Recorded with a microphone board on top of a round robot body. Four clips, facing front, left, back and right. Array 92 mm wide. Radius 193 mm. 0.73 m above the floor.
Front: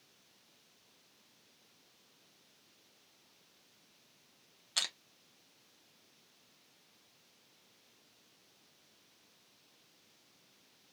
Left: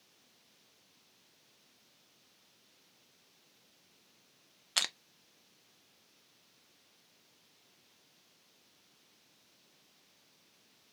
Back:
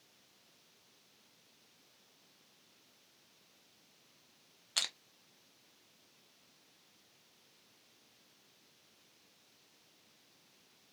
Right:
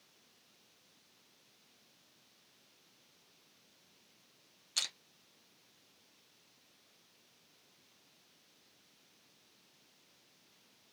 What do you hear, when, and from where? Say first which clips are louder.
4.8 s crushing: left 8 dB, front 1 dB; 90° left, 0.5 m